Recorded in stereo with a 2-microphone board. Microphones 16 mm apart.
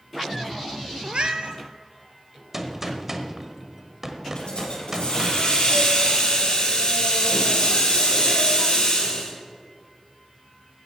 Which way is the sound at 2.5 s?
20° right (ahead or behind).